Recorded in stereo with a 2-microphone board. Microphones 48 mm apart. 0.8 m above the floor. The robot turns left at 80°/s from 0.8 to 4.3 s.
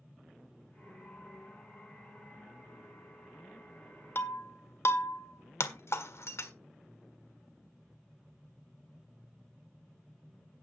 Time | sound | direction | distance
4.2 | breaking glass | 55° left (ahead or behind) | 1.6 m